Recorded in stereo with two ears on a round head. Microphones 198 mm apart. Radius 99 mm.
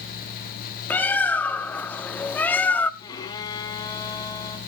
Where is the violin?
20° left (ahead or behind), 1.7 m.